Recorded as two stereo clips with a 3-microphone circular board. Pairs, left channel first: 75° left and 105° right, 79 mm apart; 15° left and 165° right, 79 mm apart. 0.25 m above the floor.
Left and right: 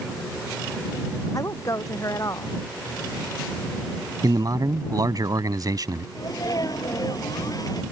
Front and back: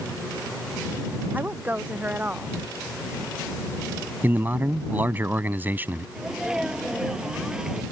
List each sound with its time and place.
1.3 s a woman speaking: 125° left
4.2 s a man speaking: 110° right
6.2 s a sneeze: 115° left